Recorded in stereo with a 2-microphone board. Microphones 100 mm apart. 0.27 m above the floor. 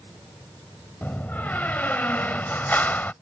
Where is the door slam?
20° left (ahead or behind).